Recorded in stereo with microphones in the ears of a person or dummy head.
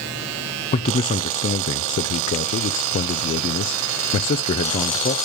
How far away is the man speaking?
About 0.6 m.